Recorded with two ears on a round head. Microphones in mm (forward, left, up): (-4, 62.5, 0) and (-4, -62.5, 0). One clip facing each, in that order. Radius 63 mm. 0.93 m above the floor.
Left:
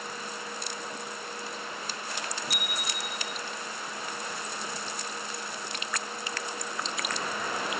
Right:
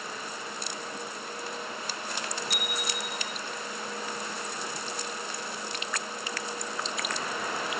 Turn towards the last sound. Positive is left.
turn(degrees=0)  # may be behind; listen again after turning